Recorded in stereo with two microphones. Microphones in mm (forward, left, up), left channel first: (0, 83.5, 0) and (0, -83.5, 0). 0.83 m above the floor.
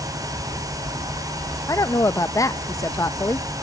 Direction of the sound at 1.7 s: 20° left (ahead or behind).